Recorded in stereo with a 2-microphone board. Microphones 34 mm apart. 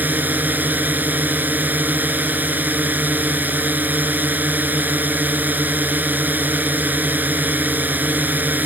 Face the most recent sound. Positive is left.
turn(degrees=-65)  # may be behind; listen again after turning